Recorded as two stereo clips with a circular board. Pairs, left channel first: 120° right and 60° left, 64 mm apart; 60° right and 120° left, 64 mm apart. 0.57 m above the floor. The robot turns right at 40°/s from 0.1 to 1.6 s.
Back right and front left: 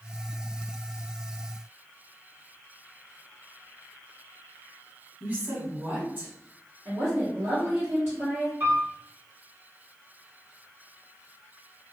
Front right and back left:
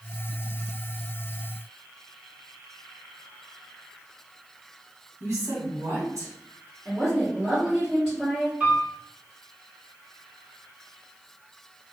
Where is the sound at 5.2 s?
110° left, 1.6 m.